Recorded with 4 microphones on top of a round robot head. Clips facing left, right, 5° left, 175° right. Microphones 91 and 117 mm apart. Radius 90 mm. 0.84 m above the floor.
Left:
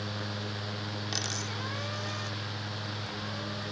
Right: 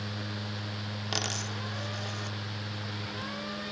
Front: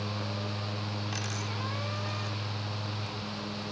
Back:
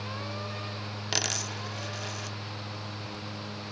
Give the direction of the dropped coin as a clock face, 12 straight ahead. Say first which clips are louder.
Right 1 dB, back 1 dB; 5 o'clock.